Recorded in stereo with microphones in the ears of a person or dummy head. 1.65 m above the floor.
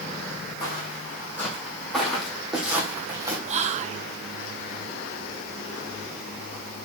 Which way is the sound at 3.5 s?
35° right (ahead or behind).